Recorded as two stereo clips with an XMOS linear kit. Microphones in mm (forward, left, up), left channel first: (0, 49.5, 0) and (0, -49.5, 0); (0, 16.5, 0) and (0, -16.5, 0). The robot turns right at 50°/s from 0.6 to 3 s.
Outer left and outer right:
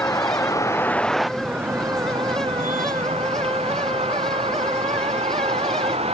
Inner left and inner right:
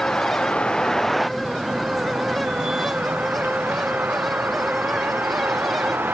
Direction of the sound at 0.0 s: 145° left.